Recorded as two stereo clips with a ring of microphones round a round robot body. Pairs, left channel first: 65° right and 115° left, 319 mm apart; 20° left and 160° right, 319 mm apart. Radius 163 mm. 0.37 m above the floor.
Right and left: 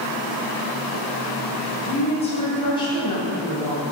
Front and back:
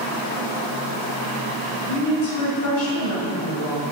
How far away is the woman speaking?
About 3 m.